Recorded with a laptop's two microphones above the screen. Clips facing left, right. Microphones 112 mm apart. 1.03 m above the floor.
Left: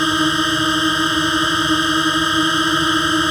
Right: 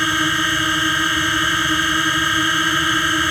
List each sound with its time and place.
0.0 s a drone: 20° left (ahead or behind)